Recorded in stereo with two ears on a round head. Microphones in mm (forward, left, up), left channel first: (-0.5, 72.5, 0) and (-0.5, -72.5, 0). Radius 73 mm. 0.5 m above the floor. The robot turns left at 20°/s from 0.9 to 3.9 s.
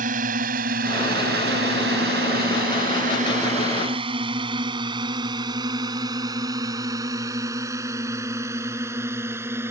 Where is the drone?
50° right (ahead or behind); by 9.7 s 15° right (ahead or behind).